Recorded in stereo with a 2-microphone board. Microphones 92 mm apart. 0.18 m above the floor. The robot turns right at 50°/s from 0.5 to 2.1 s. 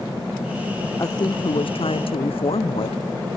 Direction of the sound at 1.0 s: 40° left.